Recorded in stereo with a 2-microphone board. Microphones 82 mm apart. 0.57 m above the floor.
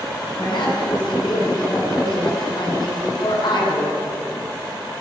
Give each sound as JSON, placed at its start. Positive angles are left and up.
{"t": 0.4, "sound": "a woman speaking", "side_deg": 60, "distance_m": 6.0}